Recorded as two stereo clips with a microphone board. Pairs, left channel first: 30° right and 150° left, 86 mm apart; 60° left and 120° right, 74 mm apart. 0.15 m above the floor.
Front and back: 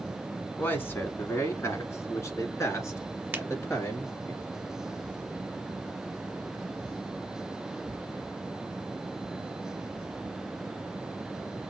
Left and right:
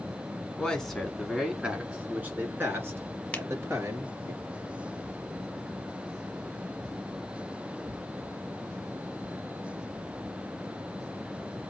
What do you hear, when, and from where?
0.6 s a man speaking: straight ahead, 1.3 m; by 4.3 s 80° right, 3 m
3.3 s a finger snap: 105° left, 1.3 m